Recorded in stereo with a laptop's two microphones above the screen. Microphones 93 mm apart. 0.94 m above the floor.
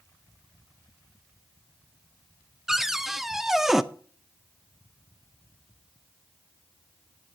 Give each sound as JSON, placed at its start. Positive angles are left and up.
{"t": 2.7, "sound": "a cupboard door", "side_deg": -5, "distance_m": 0.6}